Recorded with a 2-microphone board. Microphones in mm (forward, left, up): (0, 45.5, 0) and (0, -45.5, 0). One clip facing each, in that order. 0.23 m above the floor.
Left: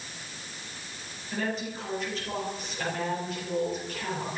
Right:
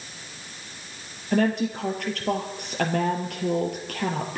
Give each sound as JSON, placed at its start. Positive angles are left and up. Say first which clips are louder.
{"t": 1.3, "sound": "a woman speaking", "louder": "right 9 dB", "side_deg": -65, "distance_m": 4.0}